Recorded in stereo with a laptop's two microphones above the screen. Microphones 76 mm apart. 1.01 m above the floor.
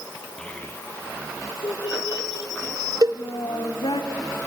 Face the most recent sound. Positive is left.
turn(degrees=-50)  # may be behind; listen again after turning